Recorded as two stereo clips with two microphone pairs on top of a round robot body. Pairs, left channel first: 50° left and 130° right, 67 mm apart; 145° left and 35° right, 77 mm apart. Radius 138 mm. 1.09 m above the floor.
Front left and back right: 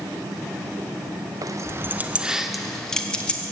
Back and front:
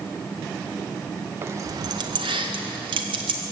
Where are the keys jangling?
95° right, 0.6 m; by 3.5 s 20° right, 1.3 m.